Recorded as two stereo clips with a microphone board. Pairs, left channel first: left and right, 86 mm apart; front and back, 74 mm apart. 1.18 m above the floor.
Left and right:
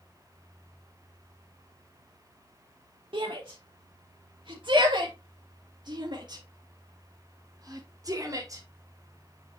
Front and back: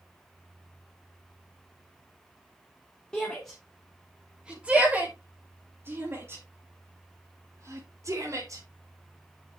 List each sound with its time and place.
3.1 s a shout: 80° right, 1.7 m; by 8.6 s 140° right, 3.5 m